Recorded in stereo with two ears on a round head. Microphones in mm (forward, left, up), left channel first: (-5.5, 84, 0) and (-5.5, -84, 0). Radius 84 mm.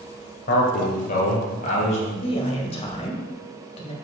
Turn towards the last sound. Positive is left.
turn(degrees=30)  # may be behind; listen again after turning